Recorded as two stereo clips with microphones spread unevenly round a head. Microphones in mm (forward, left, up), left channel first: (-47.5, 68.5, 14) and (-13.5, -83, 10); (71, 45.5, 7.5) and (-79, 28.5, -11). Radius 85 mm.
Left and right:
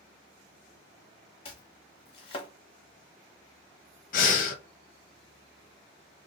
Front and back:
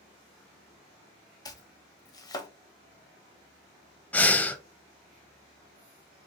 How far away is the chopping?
About 0.6 m.